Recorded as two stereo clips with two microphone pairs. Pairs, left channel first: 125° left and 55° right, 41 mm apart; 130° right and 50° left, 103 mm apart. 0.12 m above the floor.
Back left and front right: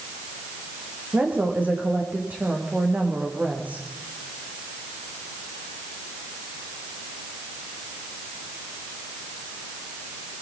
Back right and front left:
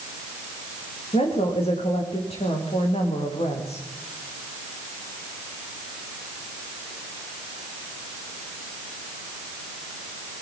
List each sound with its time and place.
1.1 s a woman speaking: 105° right, 8.5 m